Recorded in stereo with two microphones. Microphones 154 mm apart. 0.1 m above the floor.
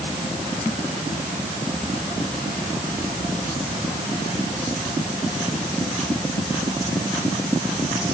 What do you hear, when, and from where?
Only background noise.